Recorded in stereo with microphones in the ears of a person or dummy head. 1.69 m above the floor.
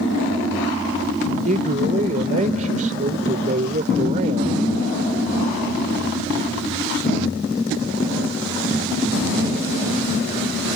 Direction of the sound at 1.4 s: 35° right (ahead or behind).